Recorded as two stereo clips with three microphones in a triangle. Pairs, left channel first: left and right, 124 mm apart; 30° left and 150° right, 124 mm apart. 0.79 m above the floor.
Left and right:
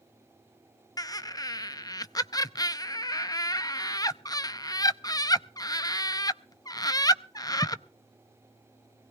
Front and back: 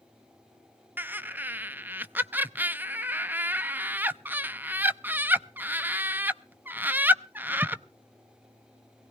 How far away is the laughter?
About 0.5 m.